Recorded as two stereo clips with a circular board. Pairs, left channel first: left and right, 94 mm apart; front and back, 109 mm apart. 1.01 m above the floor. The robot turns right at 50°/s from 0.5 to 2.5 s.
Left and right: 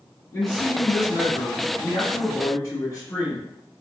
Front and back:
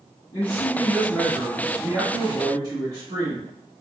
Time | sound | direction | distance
0.3 | a man speaking | 35° left | 1.6 m